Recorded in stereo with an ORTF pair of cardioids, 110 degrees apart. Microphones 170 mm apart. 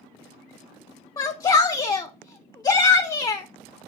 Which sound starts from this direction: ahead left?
A shout, at 1.2 s.